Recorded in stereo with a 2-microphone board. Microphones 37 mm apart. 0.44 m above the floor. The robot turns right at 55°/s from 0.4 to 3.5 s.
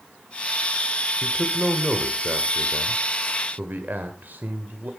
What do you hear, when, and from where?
1.2 s a man speaking: 145° left, 1.5 m; by 4.9 s 90° right, 1.5 m